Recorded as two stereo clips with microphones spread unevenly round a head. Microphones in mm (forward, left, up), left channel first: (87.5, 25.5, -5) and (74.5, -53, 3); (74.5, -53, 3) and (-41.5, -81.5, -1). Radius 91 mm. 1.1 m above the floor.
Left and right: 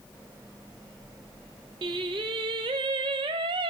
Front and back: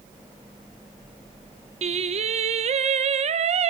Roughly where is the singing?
Behind right.